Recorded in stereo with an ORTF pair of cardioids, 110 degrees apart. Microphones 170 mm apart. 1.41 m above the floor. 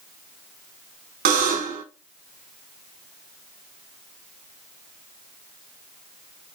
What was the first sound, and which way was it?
A buzzer, 65° right.